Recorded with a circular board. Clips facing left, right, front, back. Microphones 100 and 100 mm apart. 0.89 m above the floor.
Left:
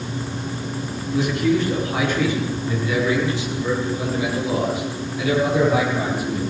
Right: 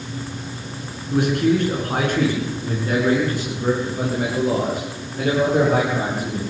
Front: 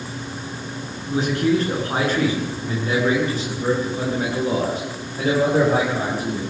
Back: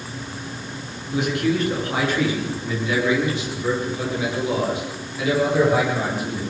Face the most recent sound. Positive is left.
turn(degrees=-45)